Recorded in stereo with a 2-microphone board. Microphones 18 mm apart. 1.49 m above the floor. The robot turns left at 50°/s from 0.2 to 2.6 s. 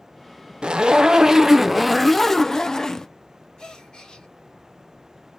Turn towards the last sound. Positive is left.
turn(degrees=55)  # may be behind; listen again after turning